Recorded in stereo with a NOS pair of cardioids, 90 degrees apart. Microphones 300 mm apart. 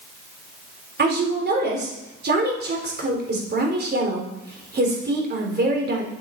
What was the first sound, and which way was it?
A woman speaking, 35° right.